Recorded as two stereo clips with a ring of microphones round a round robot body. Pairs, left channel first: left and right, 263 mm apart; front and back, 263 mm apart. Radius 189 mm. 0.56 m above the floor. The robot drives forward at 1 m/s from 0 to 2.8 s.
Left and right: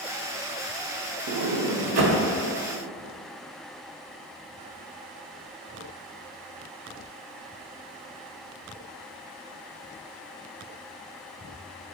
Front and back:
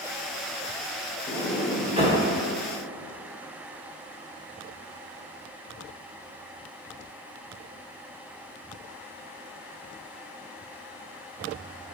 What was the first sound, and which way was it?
A sliding door, 70° right.